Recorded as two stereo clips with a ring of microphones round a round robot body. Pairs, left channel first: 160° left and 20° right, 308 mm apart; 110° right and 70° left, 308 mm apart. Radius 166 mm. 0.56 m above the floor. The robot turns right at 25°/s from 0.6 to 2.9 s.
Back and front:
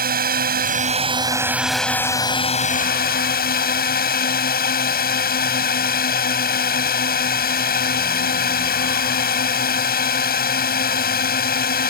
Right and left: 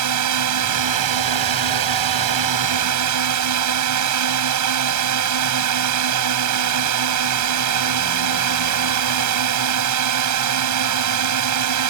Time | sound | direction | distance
0.0 | a drone | 40° left | ?